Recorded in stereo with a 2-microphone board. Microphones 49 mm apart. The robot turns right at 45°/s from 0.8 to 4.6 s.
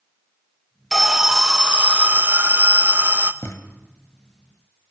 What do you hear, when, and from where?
0.9 s an alarm: straight behind, 0.9 m; by 3.3 s 75° right, 0.9 m
3.4 s a thud: 80° left, 2 m